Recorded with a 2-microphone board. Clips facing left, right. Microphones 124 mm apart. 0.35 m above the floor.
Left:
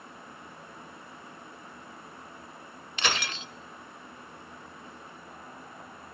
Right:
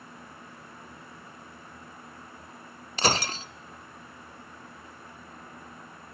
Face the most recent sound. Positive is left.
turn(degrees=-35)  # may be behind; listen again after turning